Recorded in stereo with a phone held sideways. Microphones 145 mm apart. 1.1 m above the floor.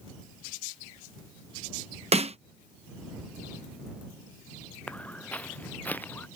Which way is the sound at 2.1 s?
45° right (ahead or behind).